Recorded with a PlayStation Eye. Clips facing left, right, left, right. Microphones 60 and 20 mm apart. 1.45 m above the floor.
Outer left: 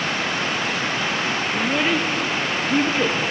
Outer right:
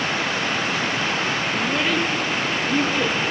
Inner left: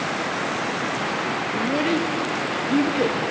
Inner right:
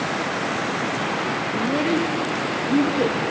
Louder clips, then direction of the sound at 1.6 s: Outer left 2 dB, inner right 1 dB; 15° left (ahead or behind).